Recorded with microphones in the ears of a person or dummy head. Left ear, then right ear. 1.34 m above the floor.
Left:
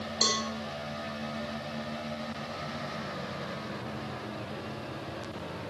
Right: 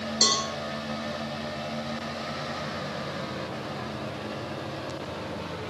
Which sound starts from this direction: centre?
A cowbell, at 0.2 s.